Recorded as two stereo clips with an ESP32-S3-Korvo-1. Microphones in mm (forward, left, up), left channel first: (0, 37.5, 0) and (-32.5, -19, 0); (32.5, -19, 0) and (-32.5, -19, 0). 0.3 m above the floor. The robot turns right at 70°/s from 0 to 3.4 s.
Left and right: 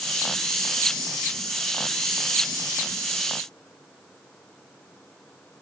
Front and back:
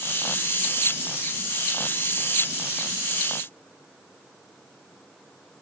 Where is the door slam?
I don't hear a door slam.